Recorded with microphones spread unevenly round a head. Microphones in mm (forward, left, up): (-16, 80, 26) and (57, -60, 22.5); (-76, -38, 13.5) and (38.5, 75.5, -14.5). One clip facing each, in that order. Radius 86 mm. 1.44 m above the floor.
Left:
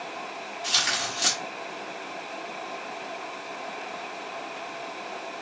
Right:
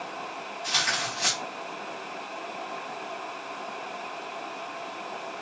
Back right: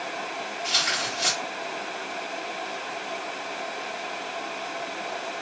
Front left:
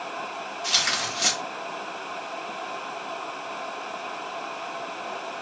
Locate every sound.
0.6 s tearing paper: 65° left, 1.4 m